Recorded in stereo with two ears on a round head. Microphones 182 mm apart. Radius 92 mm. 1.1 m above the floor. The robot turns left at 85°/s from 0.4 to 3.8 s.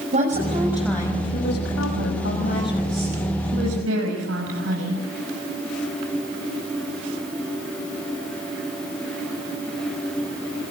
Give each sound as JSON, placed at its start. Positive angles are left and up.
{"t": 0.1, "sound": "a woman speaking", "azimuth_deg": -140, "distance_m": 7.0}